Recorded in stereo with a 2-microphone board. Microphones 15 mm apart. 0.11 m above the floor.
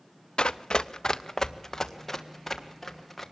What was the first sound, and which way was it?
Running footsteps, 85° left.